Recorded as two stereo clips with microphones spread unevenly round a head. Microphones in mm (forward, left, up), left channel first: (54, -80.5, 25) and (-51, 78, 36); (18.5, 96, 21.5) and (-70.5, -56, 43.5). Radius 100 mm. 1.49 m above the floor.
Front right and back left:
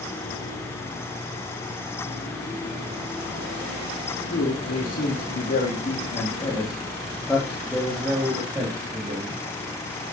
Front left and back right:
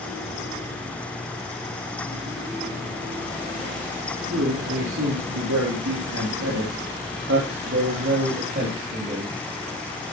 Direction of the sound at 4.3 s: 95° right.